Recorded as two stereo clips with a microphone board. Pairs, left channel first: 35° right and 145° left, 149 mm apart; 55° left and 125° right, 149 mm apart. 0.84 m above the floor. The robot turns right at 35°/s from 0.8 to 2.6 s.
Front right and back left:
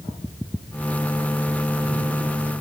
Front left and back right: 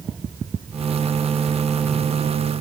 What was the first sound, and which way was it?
Only background noise.